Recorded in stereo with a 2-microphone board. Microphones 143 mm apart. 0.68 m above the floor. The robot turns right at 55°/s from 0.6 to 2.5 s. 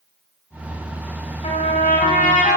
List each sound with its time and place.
1.4 s a trumpet: 50° left, 4.5 m; by 2.6 s 110° left, 4.5 m